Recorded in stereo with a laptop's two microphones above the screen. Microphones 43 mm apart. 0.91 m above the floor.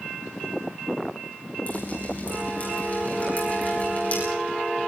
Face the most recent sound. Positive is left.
turn(degrees=35)  # may be behind; listen again after turning